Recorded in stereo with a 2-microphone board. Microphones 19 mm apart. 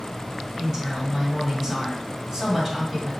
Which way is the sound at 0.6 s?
25° right (ahead or behind).